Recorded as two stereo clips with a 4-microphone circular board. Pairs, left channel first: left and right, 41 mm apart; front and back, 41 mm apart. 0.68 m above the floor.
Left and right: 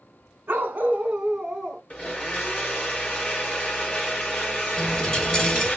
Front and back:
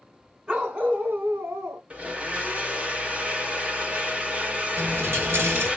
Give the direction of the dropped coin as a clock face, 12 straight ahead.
7 o'clock.